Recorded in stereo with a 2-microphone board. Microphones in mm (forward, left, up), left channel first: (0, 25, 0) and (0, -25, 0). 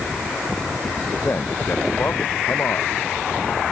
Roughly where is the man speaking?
Left.